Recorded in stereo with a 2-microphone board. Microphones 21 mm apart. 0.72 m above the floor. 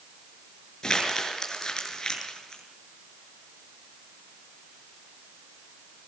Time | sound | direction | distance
0.8 | crumpling | 30° left (ahead or behind) | 6.5 m